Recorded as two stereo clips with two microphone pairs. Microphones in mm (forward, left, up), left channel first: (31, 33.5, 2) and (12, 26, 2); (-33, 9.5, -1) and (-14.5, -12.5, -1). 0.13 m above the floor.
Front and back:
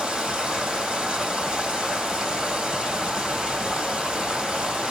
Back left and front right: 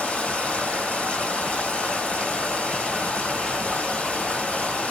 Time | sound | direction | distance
0.0 | running water | 160° left | 2.5 m